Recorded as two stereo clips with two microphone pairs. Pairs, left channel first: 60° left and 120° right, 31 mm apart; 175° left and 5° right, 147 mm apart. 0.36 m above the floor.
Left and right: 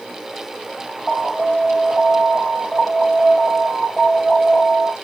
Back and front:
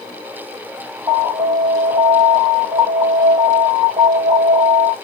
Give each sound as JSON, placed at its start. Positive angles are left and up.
{"t": 1.1, "sound": "an alarm", "azimuth_deg": -20, "distance_m": 1.5}